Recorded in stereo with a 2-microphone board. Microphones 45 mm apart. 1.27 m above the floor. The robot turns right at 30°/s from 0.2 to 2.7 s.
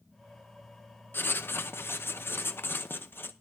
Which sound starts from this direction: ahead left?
Writing, at 1.1 s.